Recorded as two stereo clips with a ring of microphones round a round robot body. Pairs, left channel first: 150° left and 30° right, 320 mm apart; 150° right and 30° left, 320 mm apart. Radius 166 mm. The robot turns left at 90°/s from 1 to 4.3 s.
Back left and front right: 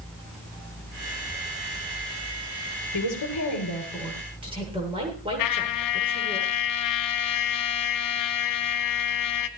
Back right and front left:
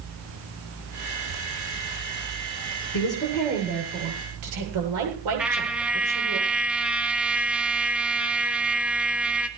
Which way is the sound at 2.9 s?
165° left.